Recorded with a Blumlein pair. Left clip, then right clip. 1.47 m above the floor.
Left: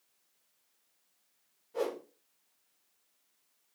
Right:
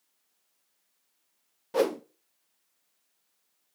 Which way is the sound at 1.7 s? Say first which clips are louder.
Right 8 dB; 40° right.